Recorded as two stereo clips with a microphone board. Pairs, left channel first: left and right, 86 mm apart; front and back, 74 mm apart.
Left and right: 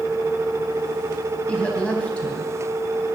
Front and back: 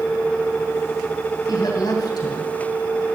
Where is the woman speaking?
15° left, 3 m.